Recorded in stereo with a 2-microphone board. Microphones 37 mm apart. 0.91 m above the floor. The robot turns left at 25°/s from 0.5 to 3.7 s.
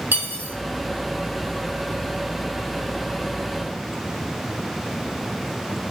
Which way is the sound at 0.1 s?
85° right.